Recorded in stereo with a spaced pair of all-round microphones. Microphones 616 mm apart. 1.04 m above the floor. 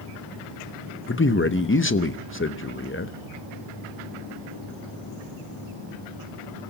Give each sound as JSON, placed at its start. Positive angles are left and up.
{"t": 1.1, "sound": "a man speaking", "side_deg": 20, "distance_m": 0.7}